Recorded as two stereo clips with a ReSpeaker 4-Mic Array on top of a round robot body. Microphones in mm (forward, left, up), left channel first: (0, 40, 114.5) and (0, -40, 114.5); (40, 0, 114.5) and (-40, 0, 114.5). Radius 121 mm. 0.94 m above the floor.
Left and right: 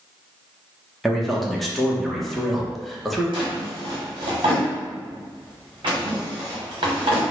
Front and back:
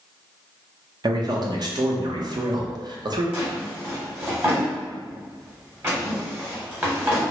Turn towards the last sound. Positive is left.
turn(degrees=-115)